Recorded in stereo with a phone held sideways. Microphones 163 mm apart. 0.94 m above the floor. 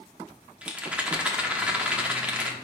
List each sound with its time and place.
0.6 s a rattle: 10° right (ahead or behind), 1.1 m